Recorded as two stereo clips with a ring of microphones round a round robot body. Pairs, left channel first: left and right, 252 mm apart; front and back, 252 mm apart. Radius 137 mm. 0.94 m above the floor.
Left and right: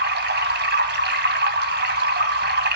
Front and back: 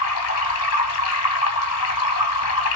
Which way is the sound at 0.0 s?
40° right.